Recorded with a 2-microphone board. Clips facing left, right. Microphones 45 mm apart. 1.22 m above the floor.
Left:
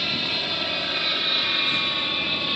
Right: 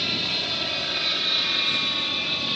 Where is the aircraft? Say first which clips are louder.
Left 1 dB; 10° left (ahead or behind).